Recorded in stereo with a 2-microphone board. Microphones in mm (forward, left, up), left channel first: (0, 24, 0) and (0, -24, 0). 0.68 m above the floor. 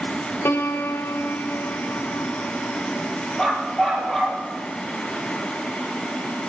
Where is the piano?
65° left (ahead or behind), 0.7 m.